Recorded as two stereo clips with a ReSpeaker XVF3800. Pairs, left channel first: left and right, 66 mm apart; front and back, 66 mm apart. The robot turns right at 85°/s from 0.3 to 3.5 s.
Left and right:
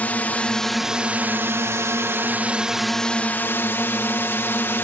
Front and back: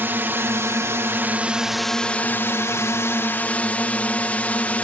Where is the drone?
140° left; by 4.8 s 55° left.